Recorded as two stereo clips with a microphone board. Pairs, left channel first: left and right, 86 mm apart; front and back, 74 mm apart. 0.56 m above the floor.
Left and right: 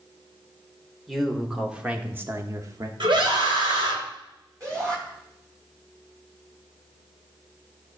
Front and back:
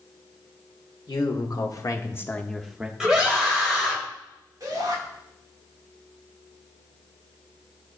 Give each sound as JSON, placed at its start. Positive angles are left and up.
{"t": 1.1, "sound": "a man speaking", "azimuth_deg": 0, "distance_m": 1.9}
{"t": 3.0, "sound": "a scream", "azimuth_deg": -100, "distance_m": 2.5}
{"t": 4.6, "sound": "a shout", "azimuth_deg": -140, "distance_m": 5.5}